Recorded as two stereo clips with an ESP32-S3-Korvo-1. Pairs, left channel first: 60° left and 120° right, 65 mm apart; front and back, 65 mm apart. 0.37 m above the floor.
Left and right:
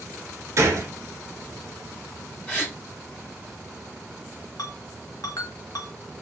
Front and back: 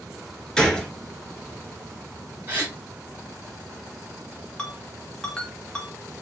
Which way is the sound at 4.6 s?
80° left.